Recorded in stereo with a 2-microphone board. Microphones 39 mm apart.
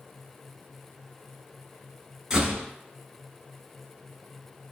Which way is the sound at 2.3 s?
15° right (ahead or behind).